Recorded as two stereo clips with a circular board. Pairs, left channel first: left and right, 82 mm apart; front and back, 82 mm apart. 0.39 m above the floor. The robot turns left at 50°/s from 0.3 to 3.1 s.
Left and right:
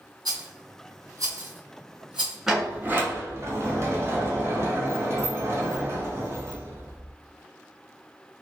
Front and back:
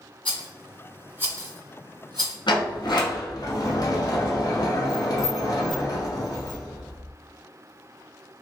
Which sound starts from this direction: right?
A rattle, at 0.2 s.